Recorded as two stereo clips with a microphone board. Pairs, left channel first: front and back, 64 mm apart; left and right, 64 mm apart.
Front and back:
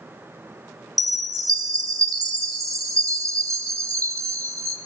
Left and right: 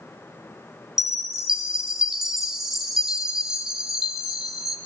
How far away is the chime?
About 0.7 m.